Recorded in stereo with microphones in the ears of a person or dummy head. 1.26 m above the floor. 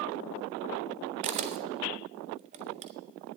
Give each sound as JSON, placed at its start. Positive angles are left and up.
{"t": 1.2, "sound": "a camera shutter", "side_deg": -35, "distance_m": 0.5}